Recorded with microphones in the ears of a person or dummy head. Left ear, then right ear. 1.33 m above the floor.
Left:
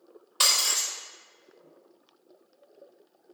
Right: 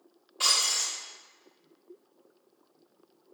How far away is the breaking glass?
About 2 m.